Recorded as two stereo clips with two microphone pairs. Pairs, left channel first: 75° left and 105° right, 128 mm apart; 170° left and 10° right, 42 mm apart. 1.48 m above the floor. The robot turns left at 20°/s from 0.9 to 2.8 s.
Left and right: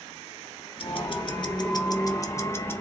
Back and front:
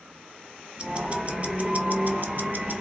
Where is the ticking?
45° left, 0.8 m; by 2.8 s 5° left, 0.8 m.